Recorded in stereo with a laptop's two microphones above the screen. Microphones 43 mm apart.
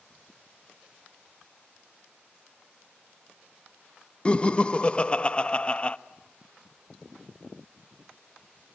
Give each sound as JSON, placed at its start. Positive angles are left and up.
{"t": 4.2, "sound": "laughter", "side_deg": 25, "distance_m": 0.7}